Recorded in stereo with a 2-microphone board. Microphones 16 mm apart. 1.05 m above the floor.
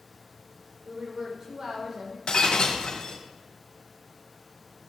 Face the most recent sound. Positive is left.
turn(degrees=60)  # may be behind; listen again after turning